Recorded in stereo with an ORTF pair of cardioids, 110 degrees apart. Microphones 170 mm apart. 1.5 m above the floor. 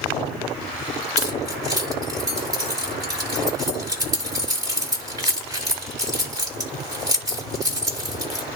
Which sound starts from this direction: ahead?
Keys jangling, at 1.2 s.